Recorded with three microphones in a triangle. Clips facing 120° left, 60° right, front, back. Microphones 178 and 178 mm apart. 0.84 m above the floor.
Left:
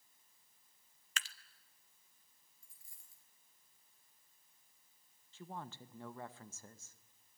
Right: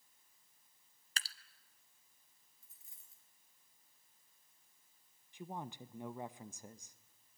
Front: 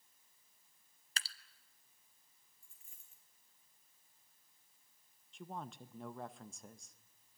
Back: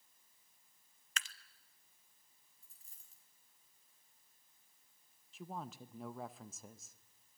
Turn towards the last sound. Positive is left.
turn(degrees=-100)